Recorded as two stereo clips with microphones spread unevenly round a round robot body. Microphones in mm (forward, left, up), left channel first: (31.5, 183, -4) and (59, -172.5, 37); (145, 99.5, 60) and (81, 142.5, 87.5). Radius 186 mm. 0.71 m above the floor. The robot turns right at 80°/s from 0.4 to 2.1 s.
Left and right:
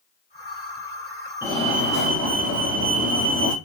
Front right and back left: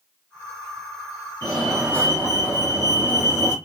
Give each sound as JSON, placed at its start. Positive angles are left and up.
{"t": 1.4, "sound": "a fire alarm", "azimuth_deg": -175, "distance_m": 2.0}